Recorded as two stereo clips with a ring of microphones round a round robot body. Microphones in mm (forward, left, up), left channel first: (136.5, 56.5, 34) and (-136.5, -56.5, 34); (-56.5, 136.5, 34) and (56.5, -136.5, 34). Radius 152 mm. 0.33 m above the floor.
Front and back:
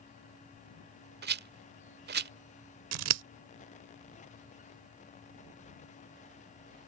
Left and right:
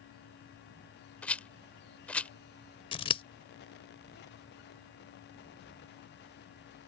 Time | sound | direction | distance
1.2 | a rattle | 165° right | ?
2.9 | scissors | 175° right | ?